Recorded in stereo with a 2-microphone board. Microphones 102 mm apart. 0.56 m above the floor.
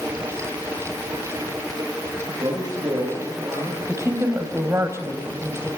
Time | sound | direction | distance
2.3 | a man speaking | 40° right (ahead or behind) | 9.5 m
3.9 | a woman speaking | 30° right (ahead or behind) | 3.5 m